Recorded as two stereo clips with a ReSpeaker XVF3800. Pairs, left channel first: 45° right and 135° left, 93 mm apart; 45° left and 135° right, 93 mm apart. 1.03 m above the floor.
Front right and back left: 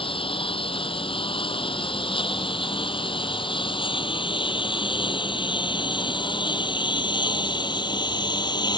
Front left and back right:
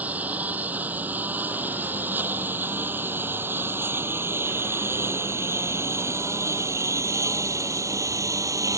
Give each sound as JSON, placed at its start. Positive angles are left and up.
{"t": 0.0, "sound": "a lawn mower", "azimuth_deg": -60}